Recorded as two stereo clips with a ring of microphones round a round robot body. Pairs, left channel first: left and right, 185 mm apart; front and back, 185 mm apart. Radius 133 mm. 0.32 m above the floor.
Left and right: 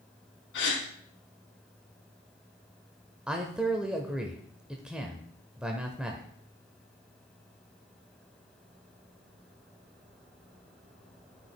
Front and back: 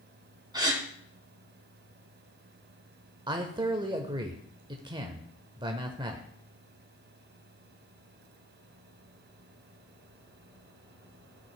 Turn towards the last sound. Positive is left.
turn(degrees=-170)